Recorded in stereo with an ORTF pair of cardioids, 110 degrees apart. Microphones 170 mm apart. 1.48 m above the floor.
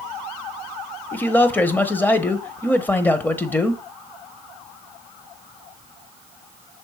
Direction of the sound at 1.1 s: 10° left.